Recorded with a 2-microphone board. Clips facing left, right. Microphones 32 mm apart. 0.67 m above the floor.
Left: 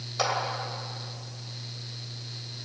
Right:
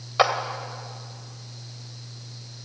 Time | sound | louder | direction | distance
0.2 | a clap | right 8 dB | 45° right (ahead or behind) | 2.5 m